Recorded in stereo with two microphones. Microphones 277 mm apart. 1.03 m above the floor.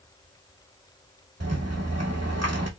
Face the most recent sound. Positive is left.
turn(degrees=-65)  # may be behind; listen again after turning